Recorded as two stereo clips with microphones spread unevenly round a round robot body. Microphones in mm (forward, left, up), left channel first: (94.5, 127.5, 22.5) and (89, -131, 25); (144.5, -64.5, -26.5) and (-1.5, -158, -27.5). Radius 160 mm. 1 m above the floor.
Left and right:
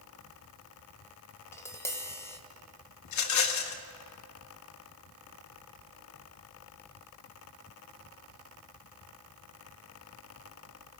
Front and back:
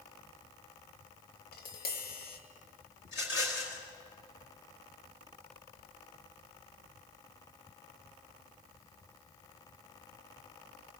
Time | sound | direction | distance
1.5 | tapping | 10° left | 2 m
3.0 | a rattle | 85° left | 1.7 m